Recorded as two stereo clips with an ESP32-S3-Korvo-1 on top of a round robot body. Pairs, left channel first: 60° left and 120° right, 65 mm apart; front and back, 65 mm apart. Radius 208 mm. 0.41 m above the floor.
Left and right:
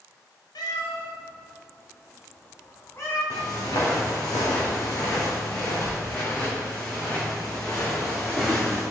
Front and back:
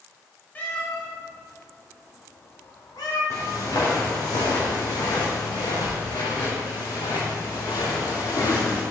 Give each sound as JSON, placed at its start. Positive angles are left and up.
{"t": 0.6, "sound": "a cat meowing", "azimuth_deg": 65, "distance_m": 1.7}
{"t": 3.3, "sound": "footsteps", "azimuth_deg": 40, "distance_m": 2.5}